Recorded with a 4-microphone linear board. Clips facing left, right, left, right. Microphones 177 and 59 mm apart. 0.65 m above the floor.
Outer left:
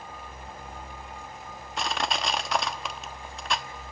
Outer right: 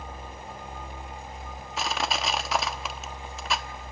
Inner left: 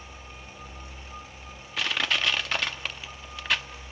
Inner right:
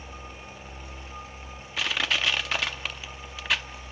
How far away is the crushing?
About 0.6 m.